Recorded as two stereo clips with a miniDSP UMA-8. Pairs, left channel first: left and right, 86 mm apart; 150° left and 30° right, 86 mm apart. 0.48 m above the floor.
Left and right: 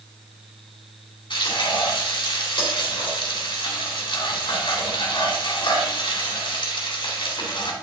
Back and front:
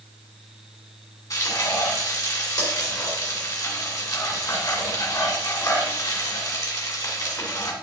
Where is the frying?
105° left, 2.5 m.